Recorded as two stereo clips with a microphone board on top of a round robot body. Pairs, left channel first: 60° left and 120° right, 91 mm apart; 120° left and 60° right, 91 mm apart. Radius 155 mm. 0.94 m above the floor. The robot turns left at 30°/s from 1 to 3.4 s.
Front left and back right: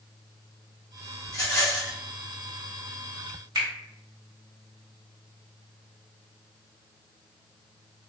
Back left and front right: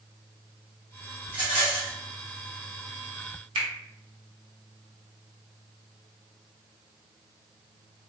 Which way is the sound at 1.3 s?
15° left.